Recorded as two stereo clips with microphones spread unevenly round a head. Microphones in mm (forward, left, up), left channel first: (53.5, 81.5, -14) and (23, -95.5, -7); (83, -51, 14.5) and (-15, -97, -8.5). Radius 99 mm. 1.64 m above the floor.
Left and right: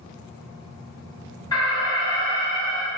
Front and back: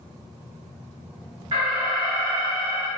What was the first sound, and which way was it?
An alarm, 145° left.